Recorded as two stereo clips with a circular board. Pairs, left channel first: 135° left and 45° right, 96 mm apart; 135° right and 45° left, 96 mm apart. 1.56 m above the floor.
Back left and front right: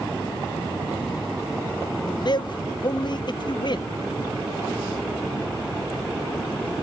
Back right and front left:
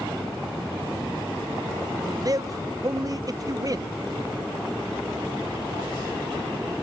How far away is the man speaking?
About 0.5 m.